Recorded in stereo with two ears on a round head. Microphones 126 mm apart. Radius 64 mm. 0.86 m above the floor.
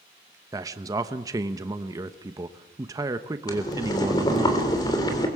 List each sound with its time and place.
0.5 s a man speaking: 25° right (ahead or behind), 1.0 m
3.5 s boiling: 25° left (ahead or behind), 3.5 m